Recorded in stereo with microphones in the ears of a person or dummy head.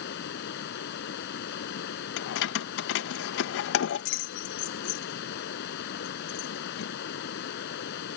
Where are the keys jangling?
70° left (ahead or behind).